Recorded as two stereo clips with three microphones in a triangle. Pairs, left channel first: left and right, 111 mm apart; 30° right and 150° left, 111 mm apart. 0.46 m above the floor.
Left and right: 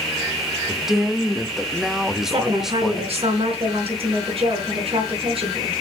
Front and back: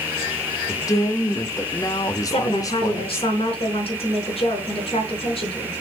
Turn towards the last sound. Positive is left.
turn(degrees=-60)